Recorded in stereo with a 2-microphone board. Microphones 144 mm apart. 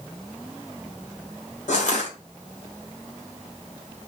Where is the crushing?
65° left (ahead or behind), 2.5 m.